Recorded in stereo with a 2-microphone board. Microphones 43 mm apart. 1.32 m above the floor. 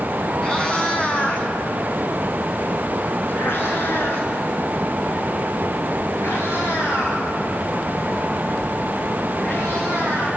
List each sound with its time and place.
0.4 s a cat meowing: 15° left (ahead or behind), 3 m; by 10.3 s 85° left, 9 m